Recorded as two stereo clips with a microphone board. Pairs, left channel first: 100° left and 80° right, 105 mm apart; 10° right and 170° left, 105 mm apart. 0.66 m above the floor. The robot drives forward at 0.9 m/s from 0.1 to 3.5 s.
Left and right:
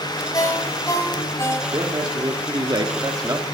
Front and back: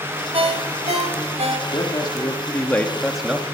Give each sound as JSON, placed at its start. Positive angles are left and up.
{"t": 0.3, "sound": "a ringtone", "azimuth_deg": 155, "distance_m": 1.4}
{"t": 1.7, "sound": "a man speaking", "azimuth_deg": -40, "distance_m": 1.8}